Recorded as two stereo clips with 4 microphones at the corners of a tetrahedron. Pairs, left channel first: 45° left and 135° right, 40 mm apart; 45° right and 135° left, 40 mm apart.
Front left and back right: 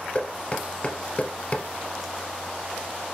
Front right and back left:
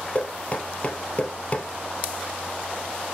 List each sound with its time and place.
0.1 s knocking: 5° right, 1.6 m